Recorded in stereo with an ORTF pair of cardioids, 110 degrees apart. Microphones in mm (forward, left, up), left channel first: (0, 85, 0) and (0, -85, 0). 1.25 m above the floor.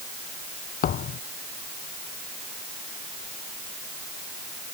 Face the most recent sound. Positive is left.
turn(degrees=55)